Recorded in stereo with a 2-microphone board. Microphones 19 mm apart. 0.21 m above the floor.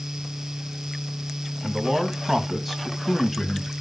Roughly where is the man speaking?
Right.